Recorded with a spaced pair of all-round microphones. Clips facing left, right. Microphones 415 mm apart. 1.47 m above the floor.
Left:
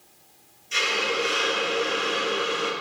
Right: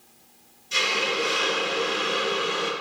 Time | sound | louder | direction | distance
0.7 | a hiss | even | 55° right (ahead or behind) | 1.0 m